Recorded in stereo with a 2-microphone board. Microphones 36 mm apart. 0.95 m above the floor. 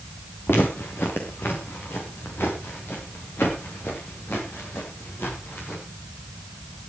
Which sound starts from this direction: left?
Footsteps, at 0.5 s.